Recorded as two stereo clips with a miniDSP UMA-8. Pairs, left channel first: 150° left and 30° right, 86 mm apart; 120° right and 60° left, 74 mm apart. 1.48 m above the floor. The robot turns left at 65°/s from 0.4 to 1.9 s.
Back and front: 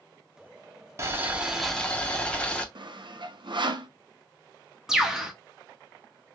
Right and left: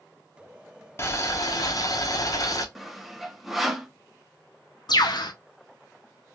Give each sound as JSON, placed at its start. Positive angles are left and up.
{"t": 1.0, "sound": "boiling", "azimuth_deg": -80, "distance_m": 0.7}
{"t": 2.8, "sound": "sawing", "azimuth_deg": -25, "distance_m": 0.5}
{"t": 4.9, "sound": "a bird", "azimuth_deg": -115, "distance_m": 0.7}